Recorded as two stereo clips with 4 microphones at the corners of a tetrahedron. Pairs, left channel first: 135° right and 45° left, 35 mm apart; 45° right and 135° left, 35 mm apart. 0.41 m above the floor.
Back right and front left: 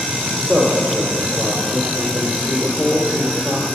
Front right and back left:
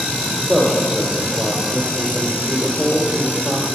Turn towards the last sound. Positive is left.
turn(degrees=100)